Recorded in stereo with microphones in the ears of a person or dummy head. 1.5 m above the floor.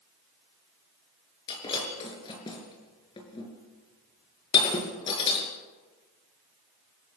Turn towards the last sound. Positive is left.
turn(degrees=25)  # may be behind; listen again after turning